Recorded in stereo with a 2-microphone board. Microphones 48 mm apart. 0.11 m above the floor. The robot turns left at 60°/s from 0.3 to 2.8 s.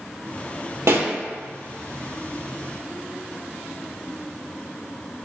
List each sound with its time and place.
0.9 s a pop: 70° right (ahead or behind), 0.8 m; by 1.1 s 65° right (ahead or behind), 0.8 m